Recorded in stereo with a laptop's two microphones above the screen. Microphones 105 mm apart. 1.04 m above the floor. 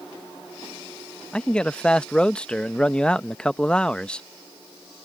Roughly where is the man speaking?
Centre.